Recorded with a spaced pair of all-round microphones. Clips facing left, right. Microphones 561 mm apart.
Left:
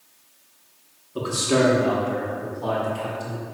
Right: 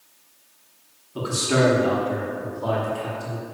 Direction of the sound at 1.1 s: 15° right (ahead or behind).